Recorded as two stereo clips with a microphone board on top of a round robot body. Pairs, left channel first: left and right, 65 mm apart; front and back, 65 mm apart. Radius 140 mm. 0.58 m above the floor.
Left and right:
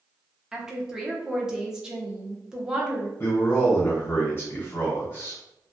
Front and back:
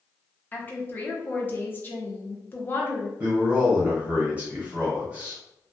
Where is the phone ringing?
I don't hear a phone ringing.